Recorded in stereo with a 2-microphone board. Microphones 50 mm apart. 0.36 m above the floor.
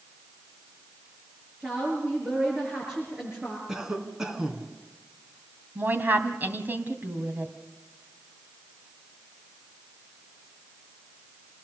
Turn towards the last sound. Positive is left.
turn(degrees=-40)  # may be behind; listen again after turning